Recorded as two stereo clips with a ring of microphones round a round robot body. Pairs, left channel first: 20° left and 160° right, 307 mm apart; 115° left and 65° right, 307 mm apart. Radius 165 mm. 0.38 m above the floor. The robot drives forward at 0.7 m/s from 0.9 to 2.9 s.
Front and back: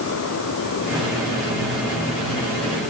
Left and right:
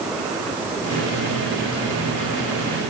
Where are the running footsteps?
I don't hear running footsteps.